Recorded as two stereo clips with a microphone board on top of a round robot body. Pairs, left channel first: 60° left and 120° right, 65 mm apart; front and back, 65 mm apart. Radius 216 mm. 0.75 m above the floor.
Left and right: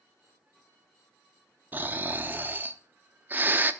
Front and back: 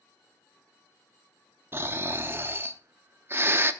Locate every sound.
1.7 s snoring: 160° right, 1.2 m